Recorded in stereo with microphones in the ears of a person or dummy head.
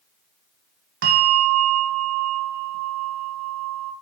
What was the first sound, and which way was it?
A bell, 65° right (ahead or behind).